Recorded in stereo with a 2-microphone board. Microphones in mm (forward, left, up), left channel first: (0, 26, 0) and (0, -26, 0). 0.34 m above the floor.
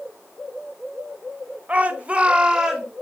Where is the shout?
30° right (ahead or behind), 1.1 m; by 2.8 s 10° right (ahead or behind), 1.0 m.